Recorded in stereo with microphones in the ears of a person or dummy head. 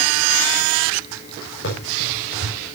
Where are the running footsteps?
60° left (ahead or behind), 6 m.